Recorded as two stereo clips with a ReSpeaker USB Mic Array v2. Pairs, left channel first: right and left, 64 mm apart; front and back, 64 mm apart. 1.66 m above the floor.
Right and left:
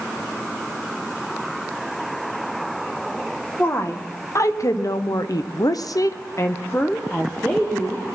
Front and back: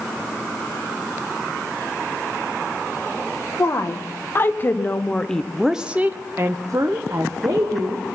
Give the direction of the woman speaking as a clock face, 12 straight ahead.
1 o'clock.